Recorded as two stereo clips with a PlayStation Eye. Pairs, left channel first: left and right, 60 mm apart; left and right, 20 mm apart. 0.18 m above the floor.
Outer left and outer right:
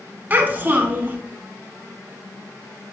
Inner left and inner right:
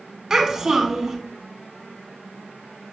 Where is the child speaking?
35° right (ahead or behind), 0.9 m.